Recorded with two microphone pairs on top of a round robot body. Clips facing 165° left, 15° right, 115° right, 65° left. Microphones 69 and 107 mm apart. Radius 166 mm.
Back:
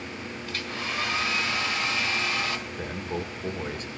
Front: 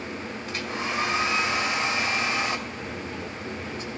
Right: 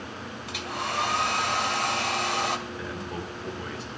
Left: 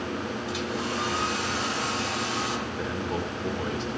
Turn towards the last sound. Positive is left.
turn(degrees=130)